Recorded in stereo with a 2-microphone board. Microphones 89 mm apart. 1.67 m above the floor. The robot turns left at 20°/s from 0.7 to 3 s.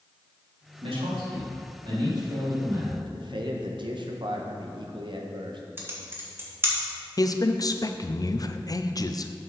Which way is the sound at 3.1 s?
60° right (ahead or behind).